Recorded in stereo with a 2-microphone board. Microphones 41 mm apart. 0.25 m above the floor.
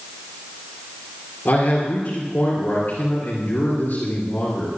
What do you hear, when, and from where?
1.4 s a man speaking: 50° left (ahead or behind), 4 m